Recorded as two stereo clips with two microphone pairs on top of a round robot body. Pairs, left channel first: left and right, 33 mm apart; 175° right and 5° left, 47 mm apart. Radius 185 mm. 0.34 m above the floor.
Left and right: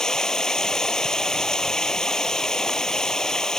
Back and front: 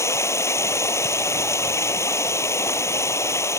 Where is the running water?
170° left.